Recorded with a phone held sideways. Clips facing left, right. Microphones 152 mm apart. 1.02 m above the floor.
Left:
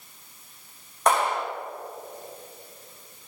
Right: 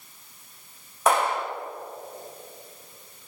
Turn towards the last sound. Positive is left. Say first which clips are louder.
# even
turn(degrees=-5)  # may be behind; listen again after turning